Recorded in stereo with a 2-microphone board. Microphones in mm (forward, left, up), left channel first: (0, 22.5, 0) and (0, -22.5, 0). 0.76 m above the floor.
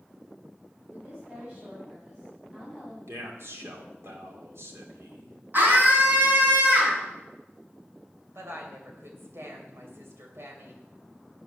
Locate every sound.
0.9 s a woman speaking: 20° right (ahead or behind), 6.5 m; by 3.0 s 10° right (ahead or behind), 5.5 m
3.1 s a man speaking: 70° right (ahead or behind), 2.5 m
5.5 s a scream: 50° right (ahead or behind), 7 m
8.3 s a woman speaking: 70° right (ahead or behind), 3 m